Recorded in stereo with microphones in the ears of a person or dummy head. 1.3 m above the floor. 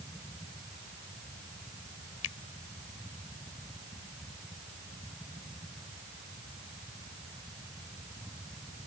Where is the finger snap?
85° left.